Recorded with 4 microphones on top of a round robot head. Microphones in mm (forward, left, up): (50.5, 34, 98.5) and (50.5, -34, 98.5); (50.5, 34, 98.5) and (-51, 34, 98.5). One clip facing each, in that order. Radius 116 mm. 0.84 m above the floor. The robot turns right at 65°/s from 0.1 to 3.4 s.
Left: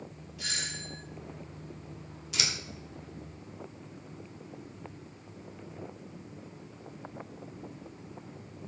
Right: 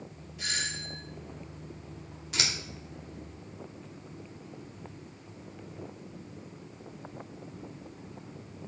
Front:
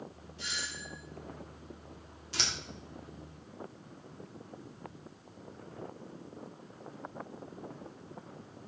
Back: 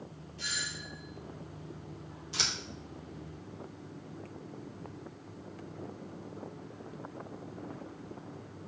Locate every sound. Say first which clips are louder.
0.4 s a doorbell: right 3 dB, even; 145° right, 3 m; by 1.0 s 105° right, 3 m
2.3 s scissors: right 2 dB, even; 45° right, 2.5 m; by 2.5 s 30° right, 2.5 m